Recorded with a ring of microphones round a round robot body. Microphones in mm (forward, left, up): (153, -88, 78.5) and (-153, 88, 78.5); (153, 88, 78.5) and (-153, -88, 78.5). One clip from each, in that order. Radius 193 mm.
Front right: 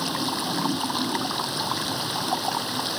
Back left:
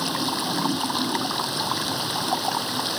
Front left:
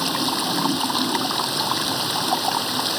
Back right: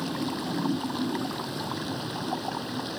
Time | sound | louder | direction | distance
0.0 | running water | back left 1 dB, front left 9 dB | 60° left | ?